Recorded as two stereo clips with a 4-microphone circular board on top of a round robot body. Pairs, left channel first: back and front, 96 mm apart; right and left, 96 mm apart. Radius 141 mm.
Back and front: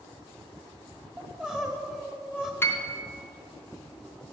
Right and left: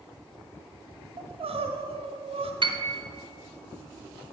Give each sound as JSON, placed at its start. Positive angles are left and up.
{"t": 1.2, "sound": "crying", "azimuth_deg": 85, "distance_m": 1.0}
{"t": 2.6, "sound": "a piano", "azimuth_deg": 115, "distance_m": 0.9}